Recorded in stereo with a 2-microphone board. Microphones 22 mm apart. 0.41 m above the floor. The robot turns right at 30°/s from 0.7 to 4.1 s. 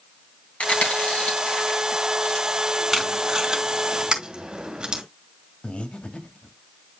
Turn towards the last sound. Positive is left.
turn(degrees=65)  # may be behind; listen again after turning